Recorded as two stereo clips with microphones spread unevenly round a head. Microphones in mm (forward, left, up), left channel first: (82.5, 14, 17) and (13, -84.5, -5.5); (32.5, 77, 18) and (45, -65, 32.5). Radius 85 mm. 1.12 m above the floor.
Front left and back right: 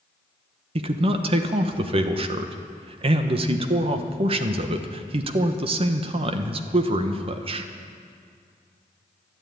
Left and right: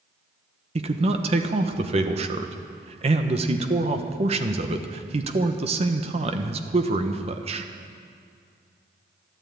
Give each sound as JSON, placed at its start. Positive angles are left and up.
{"t": 0.8, "sound": "a man speaking", "azimuth_deg": -130, "distance_m": 1.0}